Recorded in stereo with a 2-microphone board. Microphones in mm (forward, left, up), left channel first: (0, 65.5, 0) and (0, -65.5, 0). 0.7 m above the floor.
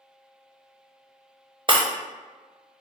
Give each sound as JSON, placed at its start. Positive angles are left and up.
{"t": 1.7, "sound": "breaking glass", "side_deg": -35, "distance_m": 0.5}